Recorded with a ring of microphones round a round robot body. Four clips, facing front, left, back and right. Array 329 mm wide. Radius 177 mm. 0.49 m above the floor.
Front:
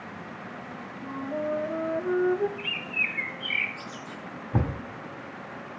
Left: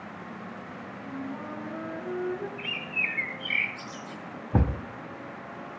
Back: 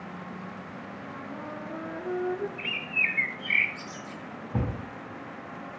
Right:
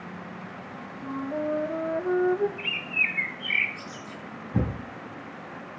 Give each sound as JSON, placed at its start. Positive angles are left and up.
{"t": 1.0, "sound": "a flute", "azimuth_deg": -55, "distance_m": 1.3}
{"t": 2.6, "sound": "a bird", "azimuth_deg": -160, "distance_m": 8.0}
{"t": 4.5, "sound": "a thud", "azimuth_deg": 70, "distance_m": 1.7}